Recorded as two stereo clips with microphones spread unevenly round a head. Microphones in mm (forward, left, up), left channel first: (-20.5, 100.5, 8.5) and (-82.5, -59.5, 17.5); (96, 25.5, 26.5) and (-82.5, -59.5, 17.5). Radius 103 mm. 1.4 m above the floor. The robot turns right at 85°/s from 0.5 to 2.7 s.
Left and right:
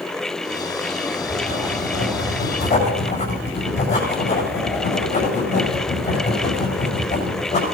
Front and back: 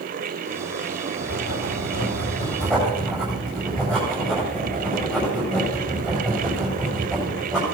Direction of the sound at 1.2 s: 15° right.